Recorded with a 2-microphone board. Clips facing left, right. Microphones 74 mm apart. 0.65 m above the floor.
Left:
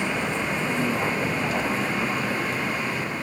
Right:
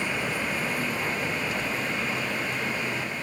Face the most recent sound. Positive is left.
turn(degrees=35)  # may be behind; listen again after turning